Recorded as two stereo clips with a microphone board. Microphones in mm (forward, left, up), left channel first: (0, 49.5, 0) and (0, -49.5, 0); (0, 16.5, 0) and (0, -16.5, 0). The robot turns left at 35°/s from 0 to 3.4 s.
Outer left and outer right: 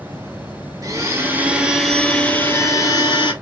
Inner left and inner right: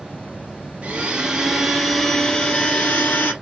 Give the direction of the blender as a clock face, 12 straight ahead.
5 o'clock.